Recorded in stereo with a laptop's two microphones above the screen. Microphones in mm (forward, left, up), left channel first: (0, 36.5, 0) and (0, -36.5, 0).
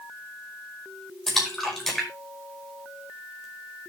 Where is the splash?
5° left (ahead or behind), 5 m.